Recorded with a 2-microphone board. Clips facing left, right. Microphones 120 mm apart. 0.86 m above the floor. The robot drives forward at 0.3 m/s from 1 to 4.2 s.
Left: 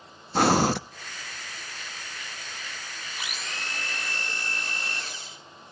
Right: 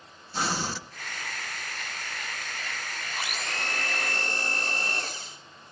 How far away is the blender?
About 2.5 m.